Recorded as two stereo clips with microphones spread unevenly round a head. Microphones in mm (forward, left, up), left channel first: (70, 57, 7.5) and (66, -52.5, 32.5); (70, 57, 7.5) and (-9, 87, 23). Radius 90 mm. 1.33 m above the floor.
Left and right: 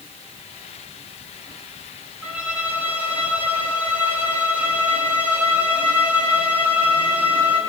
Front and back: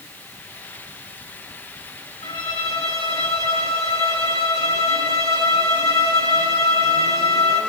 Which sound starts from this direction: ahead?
A violin, at 2.2 s.